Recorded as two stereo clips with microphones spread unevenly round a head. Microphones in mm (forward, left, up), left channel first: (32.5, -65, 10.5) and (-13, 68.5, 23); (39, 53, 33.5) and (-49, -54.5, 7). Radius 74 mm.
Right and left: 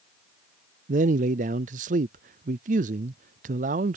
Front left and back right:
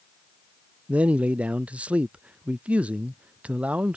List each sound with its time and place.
0.9 s a man speaking: 150° left